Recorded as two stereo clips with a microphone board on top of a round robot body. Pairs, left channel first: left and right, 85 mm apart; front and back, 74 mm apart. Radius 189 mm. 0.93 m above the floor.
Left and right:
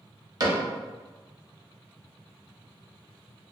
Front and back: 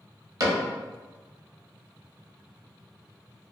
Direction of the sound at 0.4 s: 135° right.